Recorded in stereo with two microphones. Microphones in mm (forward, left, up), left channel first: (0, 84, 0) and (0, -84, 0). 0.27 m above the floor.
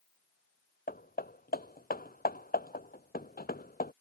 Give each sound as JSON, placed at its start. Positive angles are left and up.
{"t": 0.9, "sound": "hammering", "side_deg": 60}